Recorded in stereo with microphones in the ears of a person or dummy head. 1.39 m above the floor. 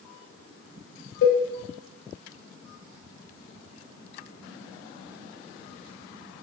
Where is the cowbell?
65° left (ahead or behind), 0.6 m.